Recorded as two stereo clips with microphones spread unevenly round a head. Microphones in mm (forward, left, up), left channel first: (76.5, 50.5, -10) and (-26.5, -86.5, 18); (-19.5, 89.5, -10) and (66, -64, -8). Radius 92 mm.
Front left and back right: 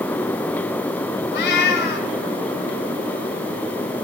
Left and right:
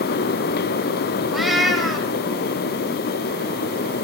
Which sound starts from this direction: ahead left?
A cat meowing, at 1.3 s.